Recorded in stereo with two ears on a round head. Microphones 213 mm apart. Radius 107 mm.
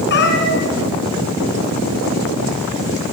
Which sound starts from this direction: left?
A cat meowing, at 0.1 s.